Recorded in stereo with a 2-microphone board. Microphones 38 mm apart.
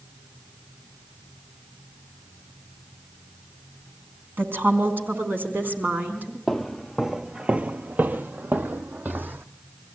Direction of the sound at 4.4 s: 65° right (ahead or behind).